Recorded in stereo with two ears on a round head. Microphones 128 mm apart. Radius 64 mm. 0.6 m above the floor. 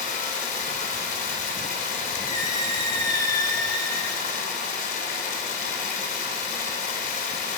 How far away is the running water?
About 2 m.